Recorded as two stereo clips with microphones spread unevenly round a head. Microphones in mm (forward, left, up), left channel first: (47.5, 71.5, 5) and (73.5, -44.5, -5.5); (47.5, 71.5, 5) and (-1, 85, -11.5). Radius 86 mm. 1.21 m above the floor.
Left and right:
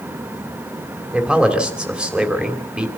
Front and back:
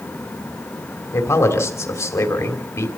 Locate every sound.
1.1 s a man speaking: 5° left, 3 m